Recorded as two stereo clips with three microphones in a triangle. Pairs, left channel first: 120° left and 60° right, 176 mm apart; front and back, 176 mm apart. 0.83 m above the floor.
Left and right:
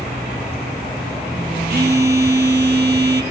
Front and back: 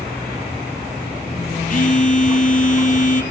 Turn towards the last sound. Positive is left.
turn(degrees=-40)